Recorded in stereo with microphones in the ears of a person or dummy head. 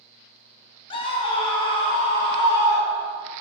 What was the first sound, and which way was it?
A scream, 25° left (ahead or behind).